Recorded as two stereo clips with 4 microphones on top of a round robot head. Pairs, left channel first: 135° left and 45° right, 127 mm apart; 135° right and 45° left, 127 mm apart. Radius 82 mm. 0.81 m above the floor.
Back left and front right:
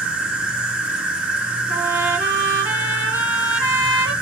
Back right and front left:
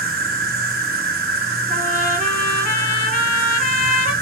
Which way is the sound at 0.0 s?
40° left.